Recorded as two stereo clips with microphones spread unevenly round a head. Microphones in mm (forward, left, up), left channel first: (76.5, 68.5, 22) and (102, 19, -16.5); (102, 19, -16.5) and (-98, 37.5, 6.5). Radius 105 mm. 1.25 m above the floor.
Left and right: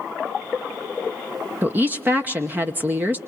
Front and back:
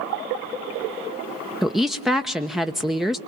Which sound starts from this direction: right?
A woman speaking, at 1.6 s.